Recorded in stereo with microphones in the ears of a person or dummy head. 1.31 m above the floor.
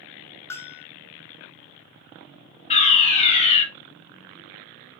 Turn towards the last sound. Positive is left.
turn(degrees=35)  # may be behind; listen again after turning